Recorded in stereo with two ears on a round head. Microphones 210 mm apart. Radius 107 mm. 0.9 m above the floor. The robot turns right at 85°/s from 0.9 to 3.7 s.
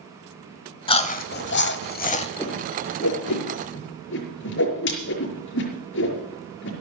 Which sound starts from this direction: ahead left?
Chewing, at 0.9 s.